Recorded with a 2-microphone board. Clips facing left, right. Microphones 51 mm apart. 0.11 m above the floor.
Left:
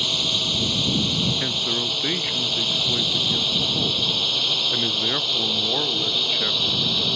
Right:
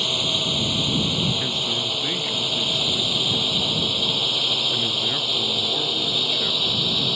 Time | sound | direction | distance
0.0 | a drone | 10° right (ahead or behind) | ?
1.4 | a man speaking | 25° left (ahead or behind) | ?